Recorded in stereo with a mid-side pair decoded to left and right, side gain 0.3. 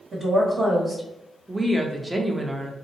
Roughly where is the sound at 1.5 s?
Ahead.